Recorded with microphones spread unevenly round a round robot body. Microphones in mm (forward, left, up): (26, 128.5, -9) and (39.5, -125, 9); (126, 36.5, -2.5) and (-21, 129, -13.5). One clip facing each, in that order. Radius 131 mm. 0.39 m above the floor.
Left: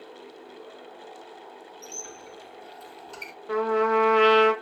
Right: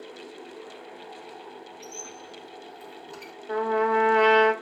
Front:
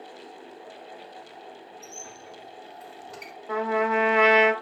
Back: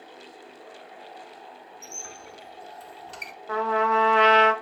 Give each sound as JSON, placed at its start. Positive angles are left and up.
{"t": 1.8, "sound": "a squeak", "azimuth_deg": 170, "distance_m": 1.2}
{"t": 3.5, "sound": "a trumpet", "azimuth_deg": 35, "distance_m": 0.5}